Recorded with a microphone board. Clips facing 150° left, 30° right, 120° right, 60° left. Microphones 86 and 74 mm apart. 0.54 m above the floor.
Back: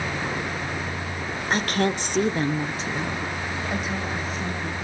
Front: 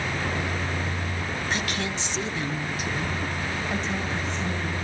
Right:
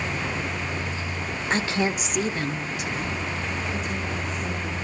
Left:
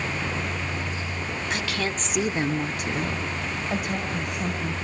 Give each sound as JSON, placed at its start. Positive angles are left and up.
{"t": 1.5, "sound": "a woman speaking", "azimuth_deg": -170, "distance_m": 1.5}